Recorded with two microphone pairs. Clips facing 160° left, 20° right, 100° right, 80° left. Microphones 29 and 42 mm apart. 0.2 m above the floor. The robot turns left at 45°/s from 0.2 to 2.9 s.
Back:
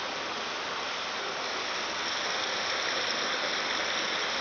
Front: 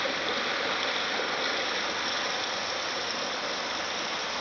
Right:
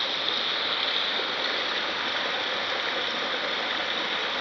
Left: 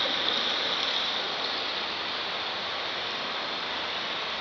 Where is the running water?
10° right, 0.8 m; by 4.4 s 130° right, 0.8 m.